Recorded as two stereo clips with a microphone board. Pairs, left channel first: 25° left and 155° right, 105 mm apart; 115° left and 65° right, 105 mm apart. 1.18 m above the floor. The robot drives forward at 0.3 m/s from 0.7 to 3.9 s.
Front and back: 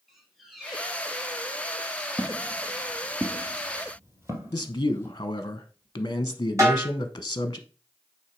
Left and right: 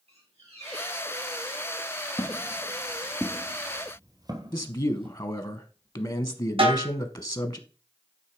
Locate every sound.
0.1 s a squeak: 65° right, 5 m; by 1.4 s 70° right, 5 m
2.2 s footsteps: 110° left, 1.4 m; by 5.2 s 90° right, 2.5 m
4.5 s a man speaking: 70° left, 0.9 m
6.6 s a snare drum: 100° right, 3.5 m